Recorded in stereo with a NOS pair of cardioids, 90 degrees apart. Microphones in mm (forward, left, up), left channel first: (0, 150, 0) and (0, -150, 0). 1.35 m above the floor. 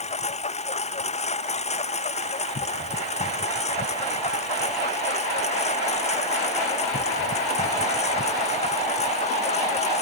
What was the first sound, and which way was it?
A lawn mower, 25° left.